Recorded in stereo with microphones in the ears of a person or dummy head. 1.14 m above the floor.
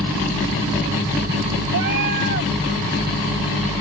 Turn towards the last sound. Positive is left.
turn(degrees=-60)  # may be behind; listen again after turning